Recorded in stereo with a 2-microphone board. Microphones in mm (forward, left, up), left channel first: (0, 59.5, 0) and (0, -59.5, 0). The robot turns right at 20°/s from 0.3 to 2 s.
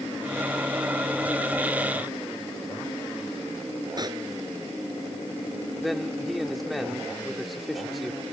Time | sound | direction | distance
4.0 | a pop | 35° right (ahead or behind) | ?
5.8 | a man speaking | centre (ahead or behind) | ?